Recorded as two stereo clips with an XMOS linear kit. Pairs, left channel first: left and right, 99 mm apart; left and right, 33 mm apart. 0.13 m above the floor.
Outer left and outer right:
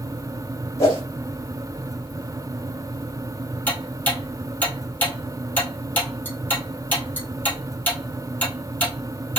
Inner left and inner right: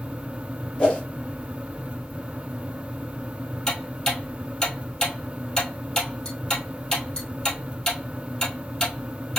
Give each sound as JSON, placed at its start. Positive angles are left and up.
{"t": 0.8, "sound": "a whoosh", "side_deg": 35, "distance_m": 2.0}
{"t": 3.7, "sound": "ticking", "side_deg": 20, "distance_m": 1.7}